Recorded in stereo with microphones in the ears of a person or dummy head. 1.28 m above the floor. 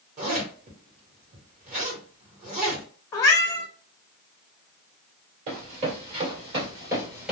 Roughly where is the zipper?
Right.